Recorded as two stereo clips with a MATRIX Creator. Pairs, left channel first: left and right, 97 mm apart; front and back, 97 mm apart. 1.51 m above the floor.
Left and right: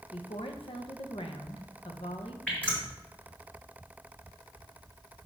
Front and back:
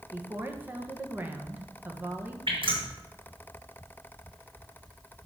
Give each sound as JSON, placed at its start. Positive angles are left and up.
{"t": 0.1, "sound": "a woman speaking", "azimuth_deg": 110, "distance_m": 1.2}
{"t": 2.5, "sound": "dripping", "azimuth_deg": 165, "distance_m": 3.5}